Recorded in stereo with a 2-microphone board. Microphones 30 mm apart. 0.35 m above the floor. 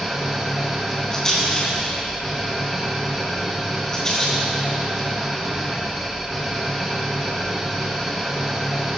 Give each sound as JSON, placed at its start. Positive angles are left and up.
{"t": 0.0, "sound": "an engine running", "side_deg": -5, "distance_m": 3.0}
{"t": 1.1, "sound": "a rattle", "side_deg": 25, "distance_m": 3.5}